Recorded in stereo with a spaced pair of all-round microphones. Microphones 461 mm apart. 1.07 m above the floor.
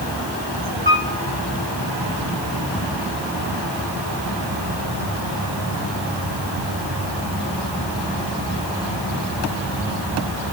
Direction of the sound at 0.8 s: 70° right (ahead or behind).